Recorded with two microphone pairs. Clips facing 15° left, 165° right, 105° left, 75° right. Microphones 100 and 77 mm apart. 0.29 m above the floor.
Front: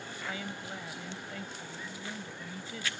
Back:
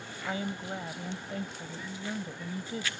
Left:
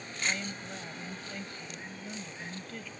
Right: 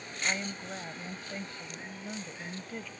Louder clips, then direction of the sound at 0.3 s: Back 6 dB, right 2 dB; 130° right.